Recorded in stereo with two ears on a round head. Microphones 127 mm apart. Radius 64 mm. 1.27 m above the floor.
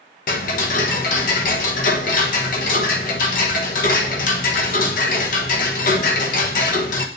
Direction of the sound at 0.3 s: 65° left (ahead or behind).